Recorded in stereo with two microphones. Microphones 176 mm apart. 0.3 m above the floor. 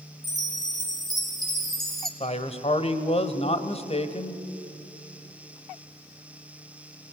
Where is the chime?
Centre (ahead or behind), 2.5 m.